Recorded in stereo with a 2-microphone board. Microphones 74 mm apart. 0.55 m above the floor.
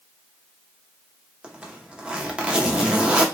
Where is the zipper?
15° right (ahead or behind), 0.5 m.